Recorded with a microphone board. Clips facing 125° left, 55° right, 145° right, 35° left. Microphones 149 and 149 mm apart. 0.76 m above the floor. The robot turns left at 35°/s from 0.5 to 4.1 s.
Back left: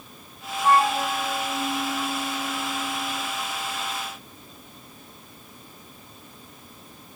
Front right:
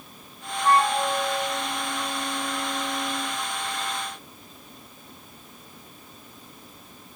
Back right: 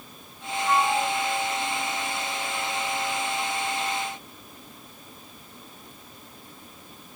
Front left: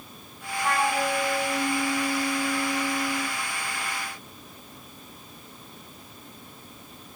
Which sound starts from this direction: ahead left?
A flute, at 0.6 s.